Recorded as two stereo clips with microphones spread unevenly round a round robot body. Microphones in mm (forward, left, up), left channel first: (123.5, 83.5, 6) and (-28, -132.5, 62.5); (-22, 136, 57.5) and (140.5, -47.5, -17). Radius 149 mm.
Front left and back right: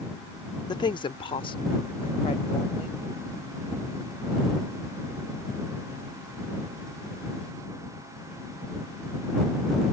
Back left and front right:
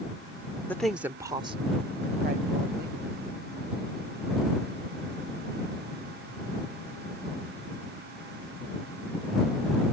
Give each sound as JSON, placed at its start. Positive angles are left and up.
{"t": 0.7, "sound": "a woman speaking", "azimuth_deg": 25}